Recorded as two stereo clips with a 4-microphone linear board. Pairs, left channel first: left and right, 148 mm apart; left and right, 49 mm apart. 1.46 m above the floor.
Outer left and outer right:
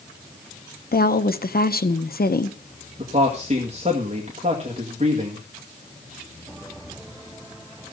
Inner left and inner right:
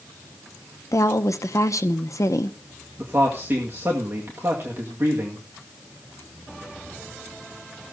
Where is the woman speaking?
75° left (ahead or behind), 0.9 m.